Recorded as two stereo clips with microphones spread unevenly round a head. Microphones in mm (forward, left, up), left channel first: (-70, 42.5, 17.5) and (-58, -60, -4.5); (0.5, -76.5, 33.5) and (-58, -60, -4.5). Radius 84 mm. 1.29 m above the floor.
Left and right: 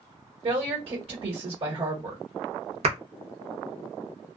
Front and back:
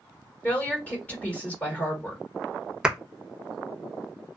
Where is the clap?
110° right, 0.9 m.